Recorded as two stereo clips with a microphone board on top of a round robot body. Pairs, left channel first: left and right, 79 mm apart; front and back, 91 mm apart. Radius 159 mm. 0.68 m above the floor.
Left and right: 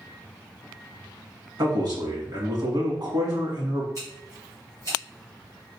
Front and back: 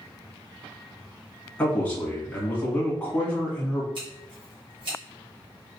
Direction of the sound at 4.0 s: 140° right.